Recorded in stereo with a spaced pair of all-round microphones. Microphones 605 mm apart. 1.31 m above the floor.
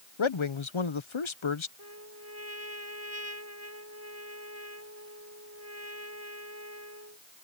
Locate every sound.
0.2 s a man speaking: 50° left (ahead or behind)
1.8 s a trumpet: 75° left (ahead or behind)